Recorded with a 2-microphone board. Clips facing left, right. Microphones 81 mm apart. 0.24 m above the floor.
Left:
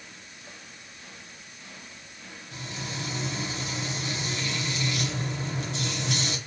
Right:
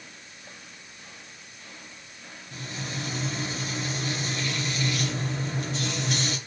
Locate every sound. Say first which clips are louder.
2.5 s frying: right 1 dB; 40° right (ahead or behind), 2.5 m